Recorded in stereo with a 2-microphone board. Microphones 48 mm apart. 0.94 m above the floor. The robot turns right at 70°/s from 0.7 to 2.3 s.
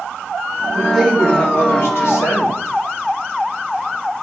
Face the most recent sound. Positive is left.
turn(degrees=95)